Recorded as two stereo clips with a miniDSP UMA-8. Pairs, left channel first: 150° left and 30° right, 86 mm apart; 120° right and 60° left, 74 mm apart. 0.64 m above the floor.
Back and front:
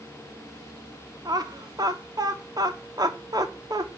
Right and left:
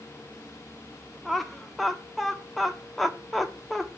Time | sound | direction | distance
1.2 | laughter | 30° right | 1.0 m